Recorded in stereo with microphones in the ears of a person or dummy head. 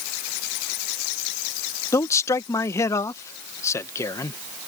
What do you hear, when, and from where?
1.9 s a man speaking: 15° left (ahead or behind)